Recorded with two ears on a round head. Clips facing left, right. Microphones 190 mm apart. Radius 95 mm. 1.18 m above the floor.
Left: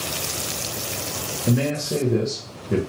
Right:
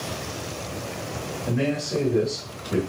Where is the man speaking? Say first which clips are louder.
Left 3 dB; 50° left (ahead or behind), 1.0 m.